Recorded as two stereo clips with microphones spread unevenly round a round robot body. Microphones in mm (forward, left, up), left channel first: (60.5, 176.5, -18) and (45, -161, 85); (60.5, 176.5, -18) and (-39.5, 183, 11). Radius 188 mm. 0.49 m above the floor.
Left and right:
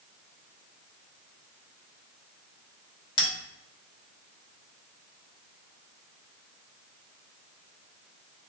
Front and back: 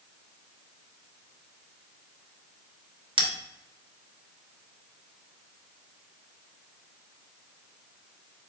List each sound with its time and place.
3.2 s a bell: 140° left, 0.9 m